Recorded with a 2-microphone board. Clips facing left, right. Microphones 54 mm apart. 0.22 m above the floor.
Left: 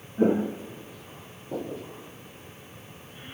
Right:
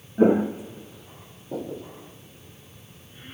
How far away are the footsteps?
About 0.8 m.